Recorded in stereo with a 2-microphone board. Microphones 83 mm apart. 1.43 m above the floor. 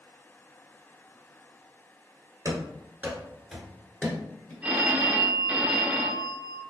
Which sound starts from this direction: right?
Running footsteps, at 2.5 s.